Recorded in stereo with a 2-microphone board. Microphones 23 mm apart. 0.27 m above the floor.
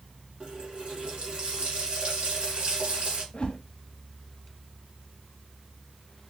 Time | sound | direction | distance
0.4 | a running tap | 55° right (ahead or behind) | 2.0 m
3.3 | a whoosh | 50° left (ahead or behind) | 0.8 m